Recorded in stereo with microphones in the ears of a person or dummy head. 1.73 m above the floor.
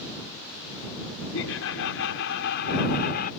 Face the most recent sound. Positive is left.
turn(degrees=55)  # may be behind; listen again after turning